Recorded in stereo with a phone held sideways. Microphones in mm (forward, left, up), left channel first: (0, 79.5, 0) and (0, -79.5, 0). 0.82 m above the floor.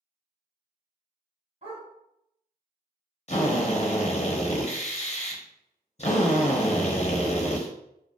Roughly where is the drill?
Left.